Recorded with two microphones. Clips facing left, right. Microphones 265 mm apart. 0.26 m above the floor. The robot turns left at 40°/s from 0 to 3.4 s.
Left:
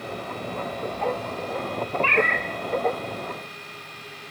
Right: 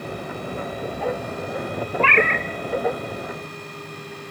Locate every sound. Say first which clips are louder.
2.0 s a cat meowing: right 3 dB; 70° right (ahead or behind), 0.6 m; by 2.5 s 55° right (ahead or behind), 0.6 m